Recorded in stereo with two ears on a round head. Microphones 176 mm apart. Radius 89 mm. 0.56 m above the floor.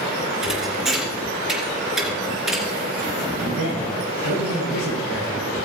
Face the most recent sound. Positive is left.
turn(degrees=65)  # may be behind; listen again after turning